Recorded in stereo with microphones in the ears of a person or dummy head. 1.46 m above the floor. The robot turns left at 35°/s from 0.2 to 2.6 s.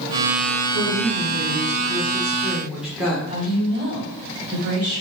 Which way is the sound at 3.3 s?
40° right (ahead or behind).